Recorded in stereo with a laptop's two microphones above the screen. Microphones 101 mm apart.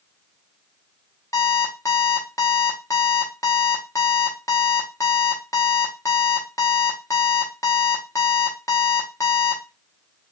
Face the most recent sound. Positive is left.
turn(degrees=30)  # may be behind; listen again after turning